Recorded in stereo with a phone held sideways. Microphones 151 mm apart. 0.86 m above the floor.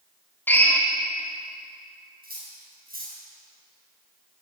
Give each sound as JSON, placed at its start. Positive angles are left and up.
{"t": 0.5, "sound": "a drill", "side_deg": 15, "distance_m": 1.5}
{"t": 2.2, "sound": "cutlery clinking", "side_deg": -80, "distance_m": 4.5}